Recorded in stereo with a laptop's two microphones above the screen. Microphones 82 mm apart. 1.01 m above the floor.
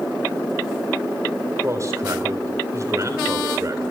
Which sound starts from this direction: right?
A man speaking, at 1.6 s.